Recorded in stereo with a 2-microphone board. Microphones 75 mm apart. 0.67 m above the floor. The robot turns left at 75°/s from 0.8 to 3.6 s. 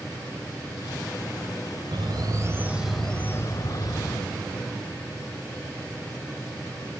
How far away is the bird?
About 1.7 m.